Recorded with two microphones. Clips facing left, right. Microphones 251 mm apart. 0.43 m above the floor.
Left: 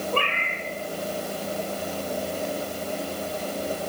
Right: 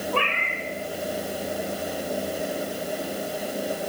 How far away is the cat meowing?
About 3 m.